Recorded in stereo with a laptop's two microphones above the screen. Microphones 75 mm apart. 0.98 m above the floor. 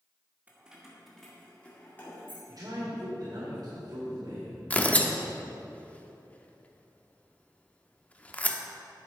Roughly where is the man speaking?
Right.